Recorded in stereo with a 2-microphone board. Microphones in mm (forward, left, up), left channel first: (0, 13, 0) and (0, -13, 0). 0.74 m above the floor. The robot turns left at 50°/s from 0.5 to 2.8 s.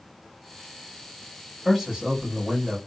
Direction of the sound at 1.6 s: 5° left.